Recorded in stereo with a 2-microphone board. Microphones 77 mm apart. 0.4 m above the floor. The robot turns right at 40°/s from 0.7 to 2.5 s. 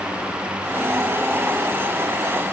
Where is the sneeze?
No sneeze in this recording.